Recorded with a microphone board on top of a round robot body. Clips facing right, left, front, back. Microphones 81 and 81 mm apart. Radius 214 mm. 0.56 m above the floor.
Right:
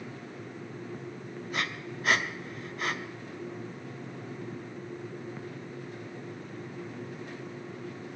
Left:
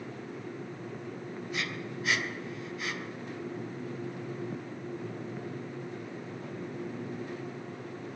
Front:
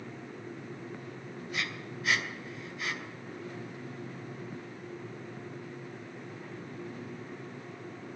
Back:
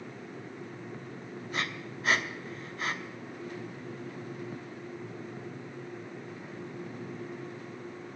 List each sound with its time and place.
1.5 s breathing: 130° right, 1.0 m